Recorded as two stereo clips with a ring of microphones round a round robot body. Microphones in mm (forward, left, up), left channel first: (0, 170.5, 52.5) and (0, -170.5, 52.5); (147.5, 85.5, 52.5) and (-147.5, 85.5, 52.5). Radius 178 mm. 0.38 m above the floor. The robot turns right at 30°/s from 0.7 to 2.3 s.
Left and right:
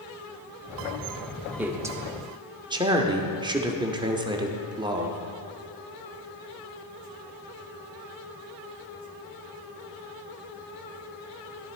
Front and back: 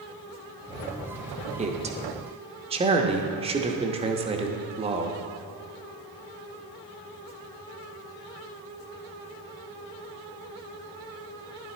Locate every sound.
1.6 s a man speaking: 165° right, 0.9 m; by 5.2 s 145° right, 0.9 m